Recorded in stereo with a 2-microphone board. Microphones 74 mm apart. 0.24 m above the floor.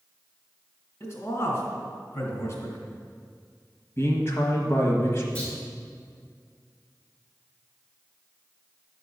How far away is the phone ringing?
I don't hear a phone ringing.